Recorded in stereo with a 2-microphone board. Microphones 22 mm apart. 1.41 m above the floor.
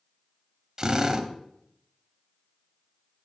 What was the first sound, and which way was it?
A drill, 30° right (ahead or behind).